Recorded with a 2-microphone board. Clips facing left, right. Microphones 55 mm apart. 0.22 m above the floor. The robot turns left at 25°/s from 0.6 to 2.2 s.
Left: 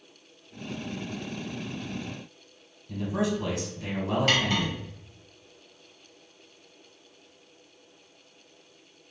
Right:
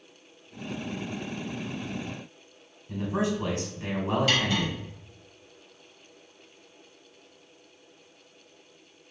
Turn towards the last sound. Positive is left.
turn(degrees=50)  # may be behind; listen again after turning